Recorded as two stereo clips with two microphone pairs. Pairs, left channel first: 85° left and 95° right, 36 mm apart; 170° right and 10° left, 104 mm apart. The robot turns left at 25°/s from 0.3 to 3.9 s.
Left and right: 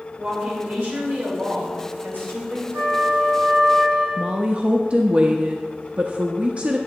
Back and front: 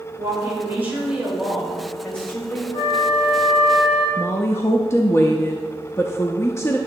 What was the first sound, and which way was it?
A woman speaking, 50° right.